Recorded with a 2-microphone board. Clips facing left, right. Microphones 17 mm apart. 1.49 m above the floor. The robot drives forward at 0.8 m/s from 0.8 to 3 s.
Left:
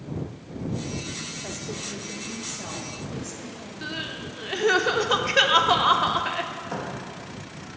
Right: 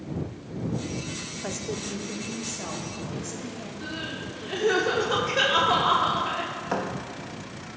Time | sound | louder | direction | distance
1.4 | a woman speaking | right 1 dB | 25° right (ahead or behind) | 0.6 m
3.8 | crying | left 2 dB | 35° left (ahead or behind) | 0.7 m
6.7 | a thud | right 6 dB | 30° right (ahead or behind) | 1.0 m